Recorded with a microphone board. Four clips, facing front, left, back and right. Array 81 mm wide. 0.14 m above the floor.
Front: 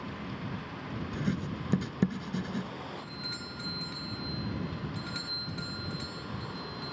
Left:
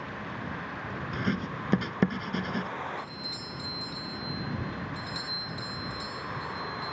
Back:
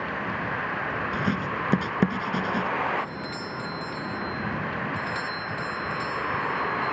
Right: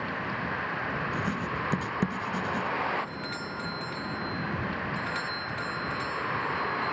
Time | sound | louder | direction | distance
0.0 | a vehicle | right 5 dB, back 10 dB | 160° right | ?
1.1 | writing | right 1 dB, back 4 dB | 150° left | ?
3.0 | a doorbell | right 6 dB, back 11 dB | 105° right | ?